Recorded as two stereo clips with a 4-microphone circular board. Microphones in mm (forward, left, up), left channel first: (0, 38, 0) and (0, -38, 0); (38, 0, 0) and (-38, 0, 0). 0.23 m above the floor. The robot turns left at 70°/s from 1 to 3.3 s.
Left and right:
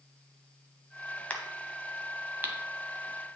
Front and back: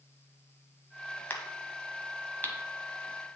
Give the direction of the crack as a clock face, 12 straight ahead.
11 o'clock.